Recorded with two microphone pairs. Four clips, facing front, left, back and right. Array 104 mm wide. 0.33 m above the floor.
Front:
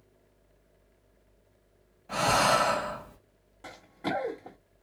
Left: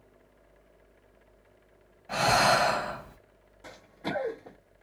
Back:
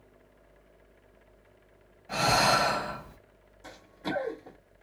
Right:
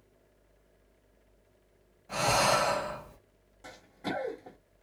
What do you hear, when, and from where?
2.1 s breathing: 85° left, 1.5 m
3.6 s running footsteps: 5° left, 1.6 m